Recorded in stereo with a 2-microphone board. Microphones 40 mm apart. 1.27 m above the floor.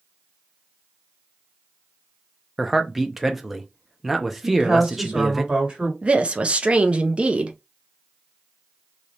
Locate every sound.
2.6 s a man speaking: centre (ahead or behind), 0.6 m
4.4 s a woman speaking: 25° right (ahead or behind), 2 m
6.0 s a woman speaking: 30° right (ahead or behind), 0.7 m